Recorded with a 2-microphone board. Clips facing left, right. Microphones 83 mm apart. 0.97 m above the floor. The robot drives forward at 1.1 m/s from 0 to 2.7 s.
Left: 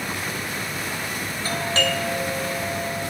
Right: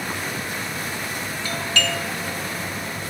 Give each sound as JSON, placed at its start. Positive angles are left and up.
{"t": 1.4, "sound": "a doorbell", "side_deg": 35, "distance_m": 2.0}